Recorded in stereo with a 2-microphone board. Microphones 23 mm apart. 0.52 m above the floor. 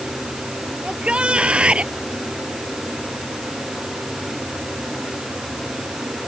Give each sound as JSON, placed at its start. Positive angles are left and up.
{"t": 0.8, "sound": "a shout", "side_deg": -55}